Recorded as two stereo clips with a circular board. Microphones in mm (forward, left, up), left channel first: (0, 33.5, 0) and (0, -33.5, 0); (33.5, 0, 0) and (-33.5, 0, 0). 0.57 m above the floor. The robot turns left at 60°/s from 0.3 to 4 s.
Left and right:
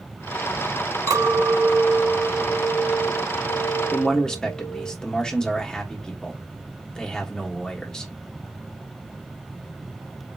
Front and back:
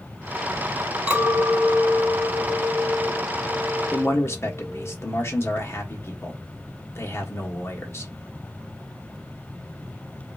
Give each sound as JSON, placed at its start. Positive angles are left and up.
{"t": 1.1, "sound": "a clink", "azimuth_deg": -105, "distance_m": 3.0}
{"t": 3.9, "sound": "a man speaking", "azimuth_deg": 25, "distance_m": 1.2}